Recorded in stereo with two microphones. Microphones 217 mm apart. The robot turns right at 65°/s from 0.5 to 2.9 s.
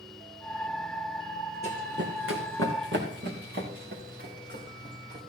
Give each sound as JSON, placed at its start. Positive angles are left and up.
{"t": 1.6, "sound": "running footsteps", "side_deg": -30, "distance_m": 1.9}